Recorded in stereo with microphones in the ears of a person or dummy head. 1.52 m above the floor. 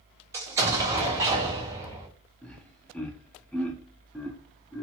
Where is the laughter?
5° left (ahead or behind), 0.7 m.